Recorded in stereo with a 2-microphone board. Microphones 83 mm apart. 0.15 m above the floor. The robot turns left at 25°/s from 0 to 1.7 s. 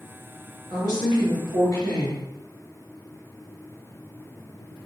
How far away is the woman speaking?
About 1.7 m.